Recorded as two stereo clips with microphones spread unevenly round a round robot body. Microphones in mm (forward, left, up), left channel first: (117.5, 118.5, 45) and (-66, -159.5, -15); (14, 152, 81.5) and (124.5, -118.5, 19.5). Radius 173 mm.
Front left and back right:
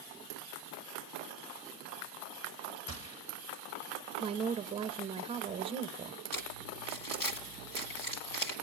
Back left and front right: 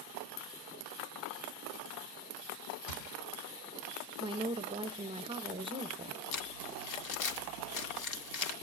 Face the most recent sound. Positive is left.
turn(degrees=90)